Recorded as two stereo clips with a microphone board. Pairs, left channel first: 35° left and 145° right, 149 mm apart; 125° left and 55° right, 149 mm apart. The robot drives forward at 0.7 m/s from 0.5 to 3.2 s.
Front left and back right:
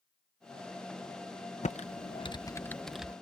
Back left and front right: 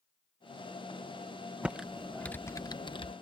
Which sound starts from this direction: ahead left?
Typing on a keyboard, at 1.6 s.